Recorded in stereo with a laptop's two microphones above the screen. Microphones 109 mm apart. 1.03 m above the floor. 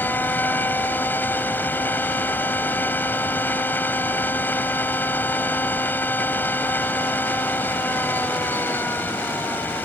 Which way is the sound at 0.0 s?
20° left (ahead or behind).